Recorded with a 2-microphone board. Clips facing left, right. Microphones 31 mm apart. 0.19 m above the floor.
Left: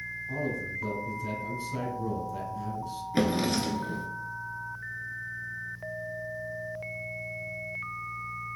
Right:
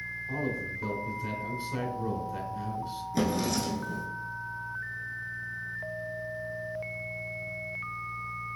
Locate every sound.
0.3 s a man speaking: 20° right (ahead or behind), 1.3 m
3.1 s a drawer: 45° left (ahead or behind), 0.8 m